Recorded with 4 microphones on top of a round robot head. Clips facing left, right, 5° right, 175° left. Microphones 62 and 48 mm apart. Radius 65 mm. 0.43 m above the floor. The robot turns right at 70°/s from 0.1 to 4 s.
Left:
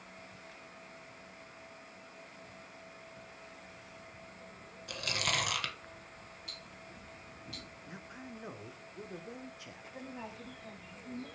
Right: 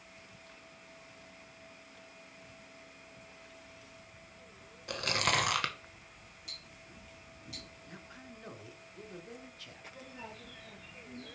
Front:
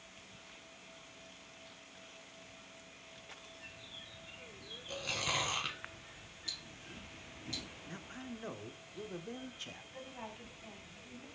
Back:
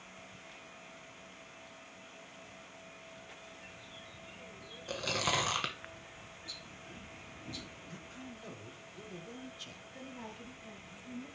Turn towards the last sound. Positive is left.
turn(degrees=60)